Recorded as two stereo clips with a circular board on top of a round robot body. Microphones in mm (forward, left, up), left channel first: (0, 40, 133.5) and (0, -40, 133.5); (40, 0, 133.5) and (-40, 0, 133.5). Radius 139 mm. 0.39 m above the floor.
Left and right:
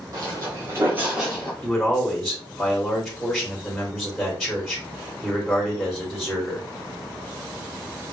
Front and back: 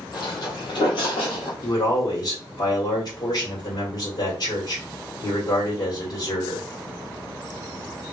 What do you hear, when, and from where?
0.1 s footsteps: 40° right, 1.1 m; by 1.5 s 15° left, 0.5 m
1.6 s a man speaking: straight ahead, 2 m